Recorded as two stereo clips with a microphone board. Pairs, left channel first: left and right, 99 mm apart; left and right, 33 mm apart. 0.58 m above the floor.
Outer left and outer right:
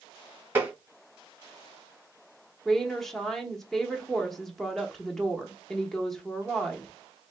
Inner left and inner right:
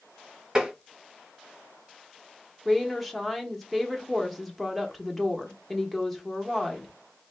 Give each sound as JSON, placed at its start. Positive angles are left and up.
{"t": 0.6, "sound": "tapping", "side_deg": -20, "distance_m": 1.8}
{"t": 2.6, "sound": "a woman speaking", "side_deg": 5, "distance_m": 1.0}